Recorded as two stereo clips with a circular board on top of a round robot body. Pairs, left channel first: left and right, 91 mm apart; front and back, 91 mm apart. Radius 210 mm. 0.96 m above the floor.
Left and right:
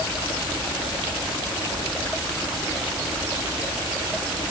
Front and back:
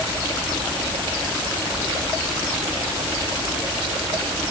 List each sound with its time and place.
Only background noise.